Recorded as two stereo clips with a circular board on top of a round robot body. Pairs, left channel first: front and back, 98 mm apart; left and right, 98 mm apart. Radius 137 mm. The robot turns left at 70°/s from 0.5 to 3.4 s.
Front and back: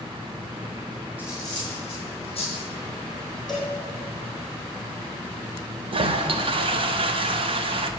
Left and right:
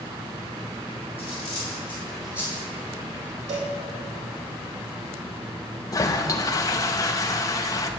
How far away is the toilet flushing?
About 0.5 m.